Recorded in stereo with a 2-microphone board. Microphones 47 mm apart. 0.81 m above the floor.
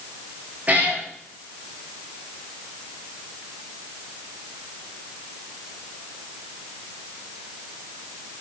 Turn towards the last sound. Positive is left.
turn(degrees=-35)  # may be behind; listen again after turning